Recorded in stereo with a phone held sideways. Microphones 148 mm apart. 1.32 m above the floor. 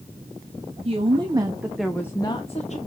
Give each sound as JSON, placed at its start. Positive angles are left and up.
{"t": 0.8, "sound": "a woman speaking", "side_deg": -40, "distance_m": 1.5}